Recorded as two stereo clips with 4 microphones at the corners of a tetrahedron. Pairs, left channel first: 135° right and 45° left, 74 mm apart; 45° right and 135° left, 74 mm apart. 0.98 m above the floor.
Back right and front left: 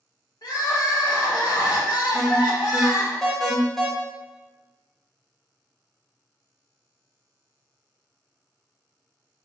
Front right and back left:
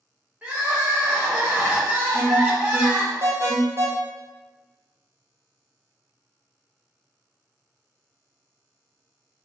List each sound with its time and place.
0.4 s crying: 160° right, 1.3 m
2.1 s an alarm: 140° left, 0.9 m